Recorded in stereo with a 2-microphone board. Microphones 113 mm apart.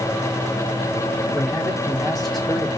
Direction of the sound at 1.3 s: 5° left (ahead or behind).